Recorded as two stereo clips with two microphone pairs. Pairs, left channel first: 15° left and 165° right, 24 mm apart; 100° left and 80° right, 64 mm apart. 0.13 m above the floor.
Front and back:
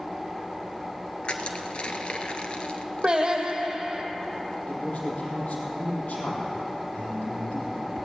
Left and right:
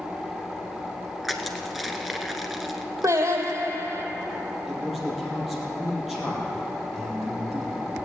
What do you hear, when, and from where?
1.2 s crushing: 10° left, 1.2 m
3.0 s singing: 110° right, 2 m
4.7 s a man speaking: 5° left, 4 m